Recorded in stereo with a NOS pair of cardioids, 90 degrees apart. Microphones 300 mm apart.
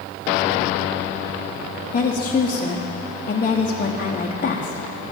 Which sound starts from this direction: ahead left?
A woman speaking, at 1.9 s.